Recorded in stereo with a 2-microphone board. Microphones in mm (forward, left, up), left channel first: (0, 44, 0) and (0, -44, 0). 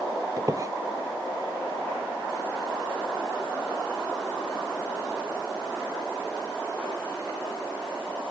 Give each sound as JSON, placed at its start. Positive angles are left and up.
{"t": 0.4, "sound": "a squeak", "side_deg": -35}